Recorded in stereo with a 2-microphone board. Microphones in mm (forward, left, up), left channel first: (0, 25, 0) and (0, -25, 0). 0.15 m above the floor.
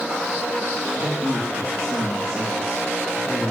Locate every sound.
1.0 s a man speaking: 65° right (ahead or behind), 3.5 m; by 3.5 s 25° right (ahead or behind), 3 m